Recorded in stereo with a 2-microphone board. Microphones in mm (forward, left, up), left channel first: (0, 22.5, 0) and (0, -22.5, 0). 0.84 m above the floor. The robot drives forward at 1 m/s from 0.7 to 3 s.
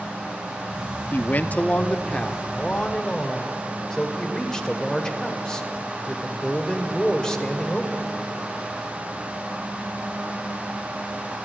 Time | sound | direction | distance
1.1 | a man speaking | 50° left (ahead or behind) | 0.9 m